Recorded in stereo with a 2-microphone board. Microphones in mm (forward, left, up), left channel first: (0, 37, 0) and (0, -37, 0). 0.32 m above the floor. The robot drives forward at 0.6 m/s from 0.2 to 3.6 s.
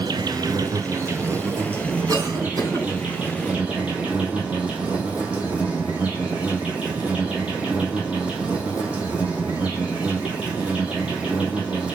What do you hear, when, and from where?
0.0 s an insect: 70° right (ahead or behind), 0.7 m; by 12.0 s 15° right (ahead or behind), 2.5 m
2.1 s a cough: 50° right (ahead or behind), 3.5 m; by 2.9 s 55° right (ahead or behind), 3.5 m